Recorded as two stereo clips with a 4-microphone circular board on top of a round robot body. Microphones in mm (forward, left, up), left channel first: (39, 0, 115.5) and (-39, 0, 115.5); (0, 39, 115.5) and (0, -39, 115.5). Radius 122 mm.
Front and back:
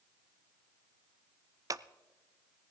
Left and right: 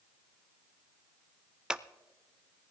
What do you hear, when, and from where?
1.7 s scissors: 165° right, 0.6 m